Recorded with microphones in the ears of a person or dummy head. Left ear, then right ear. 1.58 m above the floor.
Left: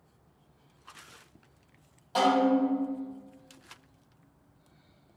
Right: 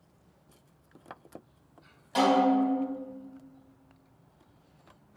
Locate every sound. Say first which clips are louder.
2.1 s a snare drum: right 1 dB; centre (ahead or behind), 1.4 m